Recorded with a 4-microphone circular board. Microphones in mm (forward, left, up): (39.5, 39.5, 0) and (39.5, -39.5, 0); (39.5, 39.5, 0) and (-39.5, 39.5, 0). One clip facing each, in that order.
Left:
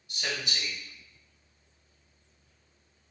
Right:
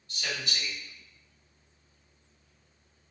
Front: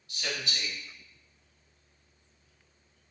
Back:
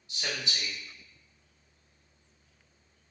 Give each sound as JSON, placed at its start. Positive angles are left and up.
{"t": 0.1, "sound": "a man speaking", "azimuth_deg": 145, "distance_m": 1.1}